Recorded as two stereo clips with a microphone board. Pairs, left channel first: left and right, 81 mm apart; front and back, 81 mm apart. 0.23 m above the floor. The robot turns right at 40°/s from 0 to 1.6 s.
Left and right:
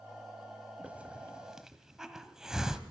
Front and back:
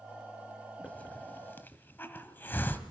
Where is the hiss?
45° right, 1.1 m; by 2.8 s 15° right, 1.1 m.